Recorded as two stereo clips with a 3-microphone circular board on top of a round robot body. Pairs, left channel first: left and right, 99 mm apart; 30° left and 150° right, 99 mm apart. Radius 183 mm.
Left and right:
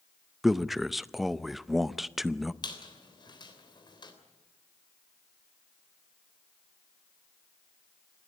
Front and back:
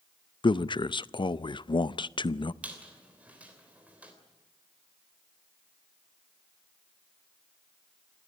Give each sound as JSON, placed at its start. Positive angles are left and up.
{"t": 0.4, "sound": "a man speaking", "azimuth_deg": -5, "distance_m": 0.6}
{"t": 2.6, "sound": "a squeak", "azimuth_deg": 130, "distance_m": 3.0}